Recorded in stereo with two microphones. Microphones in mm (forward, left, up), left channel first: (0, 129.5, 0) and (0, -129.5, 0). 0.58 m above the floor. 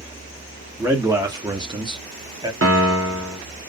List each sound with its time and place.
0.8 s a man speaking: 10° right (ahead or behind), 1.4 m; by 2.5 s 15° right (ahead or behind), 1.3 m
2.6 s a piano: 50° right (ahead or behind), 1.5 m